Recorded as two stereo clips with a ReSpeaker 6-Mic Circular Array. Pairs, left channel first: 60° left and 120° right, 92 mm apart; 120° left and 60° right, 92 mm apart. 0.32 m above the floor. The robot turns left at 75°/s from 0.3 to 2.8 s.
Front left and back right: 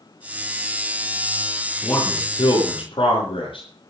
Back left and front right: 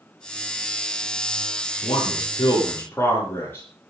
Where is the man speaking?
130° left, 9.5 m; by 3.6 s 55° left, 9.5 m.